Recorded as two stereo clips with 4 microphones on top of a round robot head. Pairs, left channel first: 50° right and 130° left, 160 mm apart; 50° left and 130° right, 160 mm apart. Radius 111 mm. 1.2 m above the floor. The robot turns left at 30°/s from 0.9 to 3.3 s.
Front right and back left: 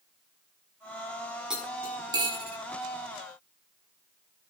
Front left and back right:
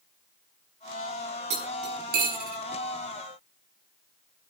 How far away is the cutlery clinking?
About 7 m.